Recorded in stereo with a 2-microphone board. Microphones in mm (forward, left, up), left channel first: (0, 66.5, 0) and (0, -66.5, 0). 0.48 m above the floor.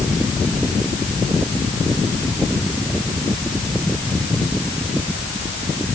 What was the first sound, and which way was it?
Only background noise.